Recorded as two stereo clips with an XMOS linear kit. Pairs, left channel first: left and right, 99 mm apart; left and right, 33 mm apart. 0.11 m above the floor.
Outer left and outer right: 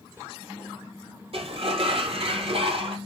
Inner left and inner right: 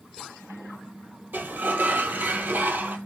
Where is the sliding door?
75° right (ahead or behind), 0.6 m.